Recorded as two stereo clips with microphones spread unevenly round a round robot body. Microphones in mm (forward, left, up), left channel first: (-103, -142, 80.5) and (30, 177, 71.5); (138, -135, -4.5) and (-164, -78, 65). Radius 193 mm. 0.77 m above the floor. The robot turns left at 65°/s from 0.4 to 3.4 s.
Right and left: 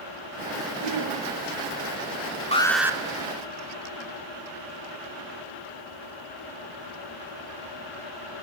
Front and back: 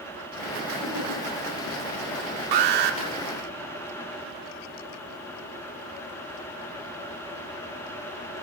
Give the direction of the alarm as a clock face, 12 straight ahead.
6 o'clock.